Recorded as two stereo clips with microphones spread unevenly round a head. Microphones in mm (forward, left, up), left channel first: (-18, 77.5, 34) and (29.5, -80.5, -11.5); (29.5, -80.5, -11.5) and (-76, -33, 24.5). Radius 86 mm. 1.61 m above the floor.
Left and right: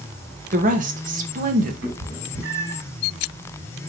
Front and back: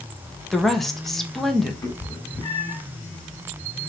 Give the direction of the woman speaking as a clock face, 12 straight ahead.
4 o'clock.